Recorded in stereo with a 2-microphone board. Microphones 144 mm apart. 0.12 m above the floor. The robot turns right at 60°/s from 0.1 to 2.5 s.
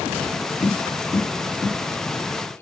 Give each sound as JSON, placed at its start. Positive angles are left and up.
{"t": 0.6, "sound": "tapping", "side_deg": 45, "distance_m": 1.9}